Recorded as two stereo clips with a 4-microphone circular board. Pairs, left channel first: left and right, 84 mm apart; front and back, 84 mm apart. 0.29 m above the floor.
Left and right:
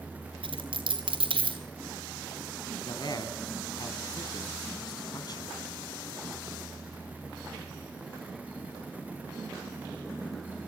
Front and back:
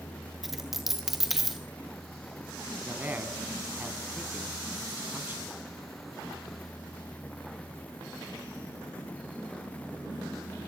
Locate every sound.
0.4 s a dropped coin: 95° right, 1.6 m
2.9 s a man speaking: 115° left, 2.0 m